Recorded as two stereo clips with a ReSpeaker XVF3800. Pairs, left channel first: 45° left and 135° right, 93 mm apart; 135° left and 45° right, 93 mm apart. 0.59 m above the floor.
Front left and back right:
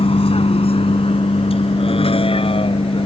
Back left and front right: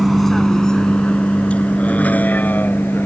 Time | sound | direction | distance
0.0 | a vehicle | 45° left | ?